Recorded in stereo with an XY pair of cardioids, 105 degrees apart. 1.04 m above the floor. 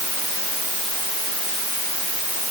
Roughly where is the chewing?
I don't hear chewing.